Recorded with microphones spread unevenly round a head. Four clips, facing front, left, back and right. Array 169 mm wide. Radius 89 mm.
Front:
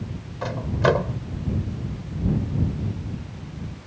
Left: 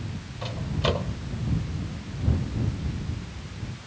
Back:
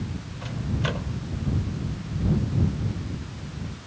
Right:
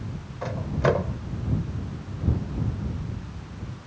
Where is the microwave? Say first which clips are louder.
Right 4 dB, front 9 dB; 25° right.